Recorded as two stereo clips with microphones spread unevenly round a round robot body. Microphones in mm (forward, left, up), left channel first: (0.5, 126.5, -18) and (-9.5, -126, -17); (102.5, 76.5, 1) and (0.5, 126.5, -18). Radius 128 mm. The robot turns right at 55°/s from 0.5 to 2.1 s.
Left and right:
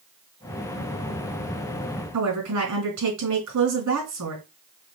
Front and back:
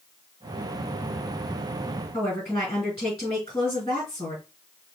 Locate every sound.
2.1 s a woman speaking: 105° right, 2.5 m